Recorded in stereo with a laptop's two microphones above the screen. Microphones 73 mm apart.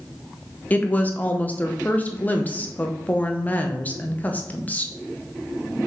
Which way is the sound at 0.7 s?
20° left (ahead or behind).